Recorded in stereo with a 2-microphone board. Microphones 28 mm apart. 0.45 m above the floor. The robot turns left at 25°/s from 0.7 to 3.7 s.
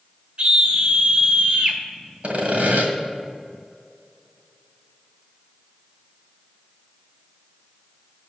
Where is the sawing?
55° right (ahead or behind), 1.8 m; by 2.9 s 65° right (ahead or behind), 1.8 m.